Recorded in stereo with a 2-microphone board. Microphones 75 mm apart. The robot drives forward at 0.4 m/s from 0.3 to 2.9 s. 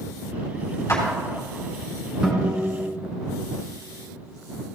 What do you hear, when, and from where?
0.9 s a clap: 35° left (ahead or behind), 3.5 m
2.2 s a guitar: 10° right (ahead or behind), 2.5 m